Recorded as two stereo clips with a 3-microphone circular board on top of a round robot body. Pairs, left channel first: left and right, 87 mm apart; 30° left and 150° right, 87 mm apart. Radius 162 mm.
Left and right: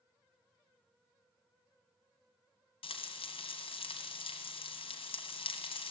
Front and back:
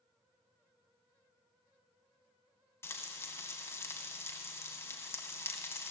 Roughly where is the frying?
Left.